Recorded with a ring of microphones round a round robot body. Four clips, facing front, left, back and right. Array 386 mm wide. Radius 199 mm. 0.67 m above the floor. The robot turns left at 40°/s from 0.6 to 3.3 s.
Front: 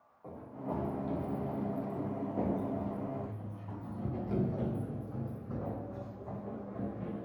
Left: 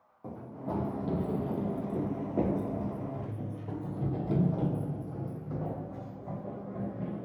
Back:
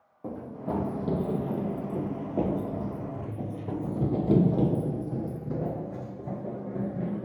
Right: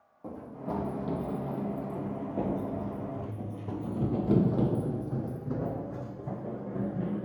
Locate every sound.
0.2 s running footsteps: 175° left, 1.9 m; by 7.3 s 140° right, 3 m